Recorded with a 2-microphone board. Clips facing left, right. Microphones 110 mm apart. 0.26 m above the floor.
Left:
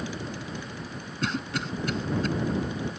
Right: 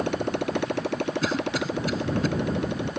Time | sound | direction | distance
0.0 | a motorcycle | 65° right (ahead or behind) | ?
1.2 | a cough | centre (ahead or behind) | ?